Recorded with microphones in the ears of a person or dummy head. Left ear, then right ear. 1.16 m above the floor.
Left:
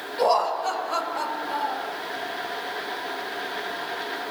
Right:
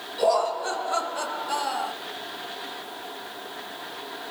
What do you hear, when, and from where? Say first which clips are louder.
0.2 s laughter: left 1 dB; 45° left (ahead or behind), 2 m; by 1.9 s 45° right (ahead or behind), 0.8 m